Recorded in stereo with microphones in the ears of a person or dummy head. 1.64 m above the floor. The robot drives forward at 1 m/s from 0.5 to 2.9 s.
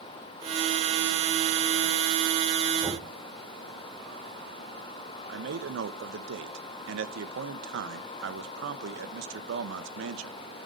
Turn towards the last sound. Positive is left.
turn(degrees=-75)  # may be behind; listen again after turning